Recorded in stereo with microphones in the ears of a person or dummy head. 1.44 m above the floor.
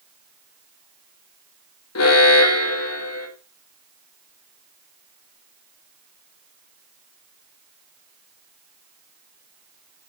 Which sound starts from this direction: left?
An alarm, at 1.9 s.